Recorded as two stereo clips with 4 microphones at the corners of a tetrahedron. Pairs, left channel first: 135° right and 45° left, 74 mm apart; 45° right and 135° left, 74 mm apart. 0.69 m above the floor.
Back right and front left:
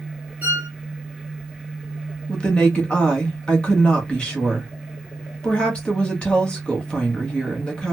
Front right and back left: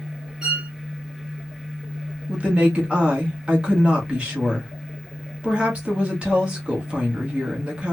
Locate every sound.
0.4 s a violin: 65° left, 0.9 m
2.3 s a woman speaking: 175° left, 1.1 m